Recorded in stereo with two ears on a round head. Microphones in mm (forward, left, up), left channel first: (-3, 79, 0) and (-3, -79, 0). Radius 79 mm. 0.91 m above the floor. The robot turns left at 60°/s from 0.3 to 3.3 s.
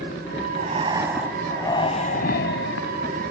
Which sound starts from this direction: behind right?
Breathing, at 0.6 s.